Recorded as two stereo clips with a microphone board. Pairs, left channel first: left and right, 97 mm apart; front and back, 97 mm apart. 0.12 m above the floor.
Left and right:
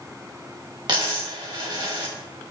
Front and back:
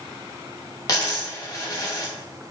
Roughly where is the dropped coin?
Ahead right.